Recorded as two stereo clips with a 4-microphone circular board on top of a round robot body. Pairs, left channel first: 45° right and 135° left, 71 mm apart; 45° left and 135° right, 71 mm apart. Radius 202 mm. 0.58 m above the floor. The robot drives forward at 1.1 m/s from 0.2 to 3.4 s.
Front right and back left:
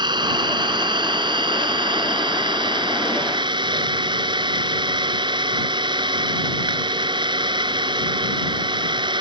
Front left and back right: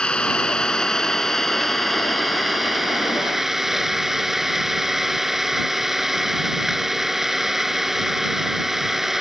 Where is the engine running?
125° left; by 9.2 s 140° left.